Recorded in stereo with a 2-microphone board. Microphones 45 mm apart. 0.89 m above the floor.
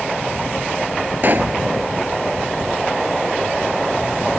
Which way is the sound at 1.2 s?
45° right (ahead or behind).